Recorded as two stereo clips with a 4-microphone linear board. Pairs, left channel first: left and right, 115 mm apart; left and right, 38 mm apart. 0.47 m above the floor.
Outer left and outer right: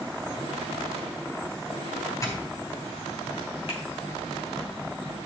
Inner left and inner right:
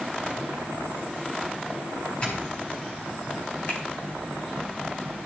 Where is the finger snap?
60° left (ahead or behind), 5 m.